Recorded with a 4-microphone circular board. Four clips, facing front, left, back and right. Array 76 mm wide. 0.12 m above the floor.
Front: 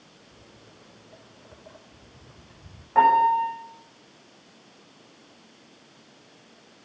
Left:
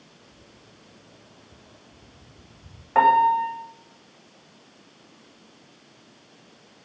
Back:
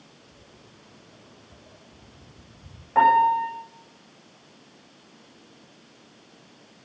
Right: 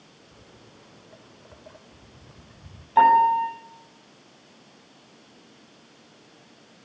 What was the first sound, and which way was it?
Footsteps, 60° right.